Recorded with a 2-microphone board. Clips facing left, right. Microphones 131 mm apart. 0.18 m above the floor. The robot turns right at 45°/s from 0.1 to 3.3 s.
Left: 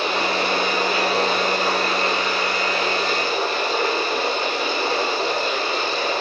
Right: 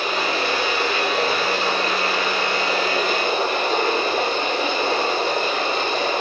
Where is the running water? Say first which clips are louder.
Left 1 dB; 95° left, 4 m; by 6.2 s 120° right, 4 m.